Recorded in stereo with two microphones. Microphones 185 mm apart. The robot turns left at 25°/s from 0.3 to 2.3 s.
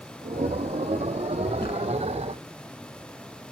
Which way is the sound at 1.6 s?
55° left (ahead or behind).